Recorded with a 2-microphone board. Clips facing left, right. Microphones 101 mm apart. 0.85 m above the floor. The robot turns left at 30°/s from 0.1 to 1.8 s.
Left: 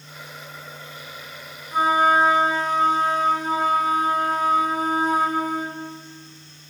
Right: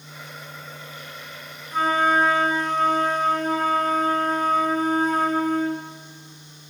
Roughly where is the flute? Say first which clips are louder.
Left 2 dB; centre.